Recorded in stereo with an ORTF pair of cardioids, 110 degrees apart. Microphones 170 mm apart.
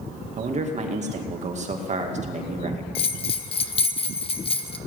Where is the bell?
35° left, 0.9 m.